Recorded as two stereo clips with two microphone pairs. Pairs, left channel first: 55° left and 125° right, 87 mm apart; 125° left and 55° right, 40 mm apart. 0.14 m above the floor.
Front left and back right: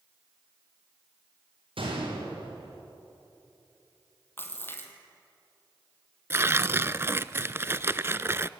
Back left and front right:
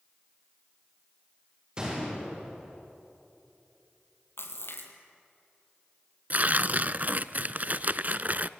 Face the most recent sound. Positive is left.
turn(degrees=-75)